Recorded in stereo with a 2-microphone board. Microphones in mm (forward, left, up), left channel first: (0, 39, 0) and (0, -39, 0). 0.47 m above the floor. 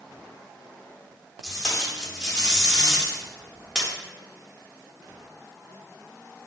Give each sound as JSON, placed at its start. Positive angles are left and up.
{"t": 1.4, "sound": "tape being pulled", "side_deg": 0, "distance_m": 1.5}